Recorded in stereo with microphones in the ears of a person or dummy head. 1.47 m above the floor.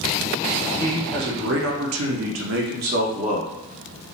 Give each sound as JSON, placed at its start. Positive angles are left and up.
{"t": 0.6, "sound": "a man speaking", "side_deg": -40, "distance_m": 1.0}